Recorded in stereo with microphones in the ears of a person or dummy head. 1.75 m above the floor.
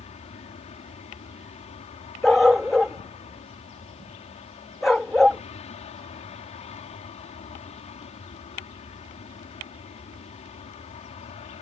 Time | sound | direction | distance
0.0 | an aircraft | 35° left (ahead or behind) | ?
2.2 | a dog barking | centre (ahead or behind) | ?